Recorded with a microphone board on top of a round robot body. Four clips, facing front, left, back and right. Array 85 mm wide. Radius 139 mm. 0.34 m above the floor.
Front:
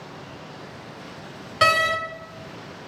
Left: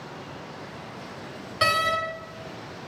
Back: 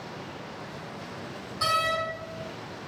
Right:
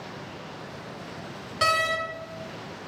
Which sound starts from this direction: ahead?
A door slam, at 1.6 s.